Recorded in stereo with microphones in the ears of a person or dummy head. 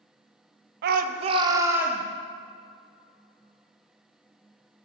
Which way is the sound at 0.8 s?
65° right (ahead or behind).